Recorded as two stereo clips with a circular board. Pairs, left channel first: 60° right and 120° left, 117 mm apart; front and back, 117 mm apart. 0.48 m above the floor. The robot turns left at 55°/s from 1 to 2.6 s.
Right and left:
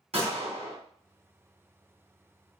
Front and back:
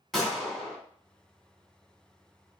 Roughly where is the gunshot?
Left.